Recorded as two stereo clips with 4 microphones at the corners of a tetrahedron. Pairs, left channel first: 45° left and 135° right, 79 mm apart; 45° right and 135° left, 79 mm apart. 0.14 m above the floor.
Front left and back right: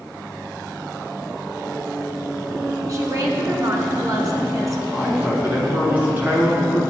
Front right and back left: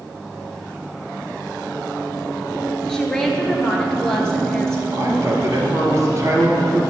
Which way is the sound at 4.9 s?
165° left.